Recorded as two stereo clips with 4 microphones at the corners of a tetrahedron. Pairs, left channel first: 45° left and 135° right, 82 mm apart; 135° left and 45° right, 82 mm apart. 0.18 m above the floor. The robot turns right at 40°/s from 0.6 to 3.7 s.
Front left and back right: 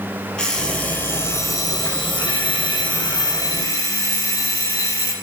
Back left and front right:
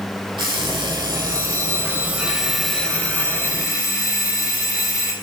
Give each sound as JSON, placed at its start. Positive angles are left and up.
{"t": 0.4, "sound": "an alarm clock", "azimuth_deg": -35, "distance_m": 3.0}